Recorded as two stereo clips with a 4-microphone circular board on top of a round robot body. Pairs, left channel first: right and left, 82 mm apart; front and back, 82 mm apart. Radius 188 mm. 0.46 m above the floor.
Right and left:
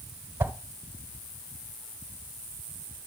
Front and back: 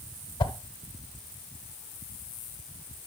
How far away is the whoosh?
About 0.9 m.